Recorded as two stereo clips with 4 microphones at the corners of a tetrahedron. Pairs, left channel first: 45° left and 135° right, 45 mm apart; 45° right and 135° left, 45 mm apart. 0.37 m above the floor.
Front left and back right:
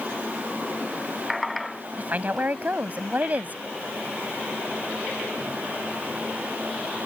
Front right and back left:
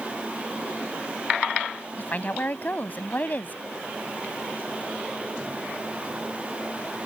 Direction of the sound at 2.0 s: 90° right.